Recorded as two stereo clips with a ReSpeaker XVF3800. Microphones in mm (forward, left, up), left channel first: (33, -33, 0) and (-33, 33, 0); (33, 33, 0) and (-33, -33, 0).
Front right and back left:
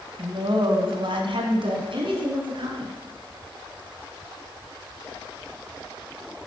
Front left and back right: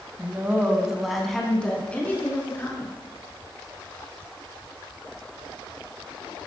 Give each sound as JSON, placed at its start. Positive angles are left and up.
{"t": 0.2, "sound": "a woman speaking", "azimuth_deg": 165, "distance_m": 2.0}